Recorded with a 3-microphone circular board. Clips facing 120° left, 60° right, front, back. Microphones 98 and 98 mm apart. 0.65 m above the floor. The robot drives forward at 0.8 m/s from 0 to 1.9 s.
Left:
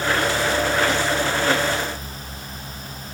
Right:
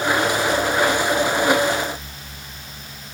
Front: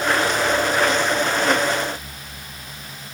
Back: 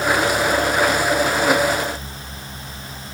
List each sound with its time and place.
Only background noise.